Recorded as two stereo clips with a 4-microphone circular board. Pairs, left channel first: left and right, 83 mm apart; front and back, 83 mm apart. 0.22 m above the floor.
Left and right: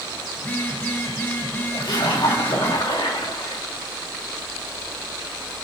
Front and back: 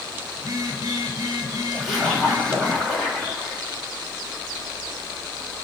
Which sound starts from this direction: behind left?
A phone buzzing, at 0.4 s.